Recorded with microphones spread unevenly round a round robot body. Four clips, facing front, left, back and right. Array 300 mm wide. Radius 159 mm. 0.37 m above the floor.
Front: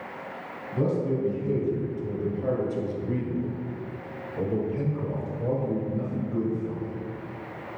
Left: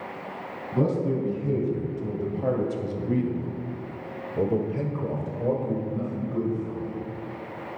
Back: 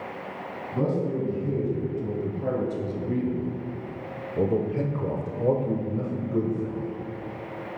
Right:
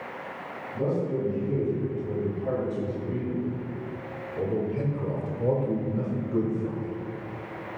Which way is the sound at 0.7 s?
100° left.